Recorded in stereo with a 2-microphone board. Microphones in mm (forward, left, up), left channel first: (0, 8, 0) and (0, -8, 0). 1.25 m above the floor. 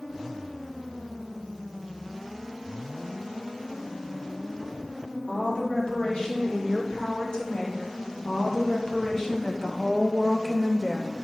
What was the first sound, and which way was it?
A woman speaking, 60° left (ahead or behind).